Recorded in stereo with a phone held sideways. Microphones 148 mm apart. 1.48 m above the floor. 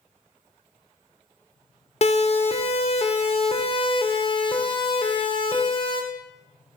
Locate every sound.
2.0 s a siren: 45° left (ahead or behind), 3 m; by 6.0 s 35° left (ahead or behind), 5.5 m